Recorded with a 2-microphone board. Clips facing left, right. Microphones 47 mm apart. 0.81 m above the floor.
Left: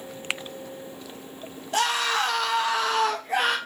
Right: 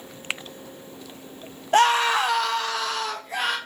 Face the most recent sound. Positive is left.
turn(degrees=50)  # may be behind; listen again after turning